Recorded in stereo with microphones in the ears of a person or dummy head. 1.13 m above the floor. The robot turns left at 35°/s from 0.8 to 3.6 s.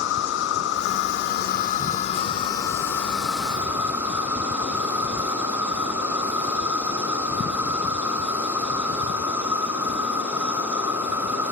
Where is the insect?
90° left, 0.7 m; by 11.5 s 10° right, 0.7 m.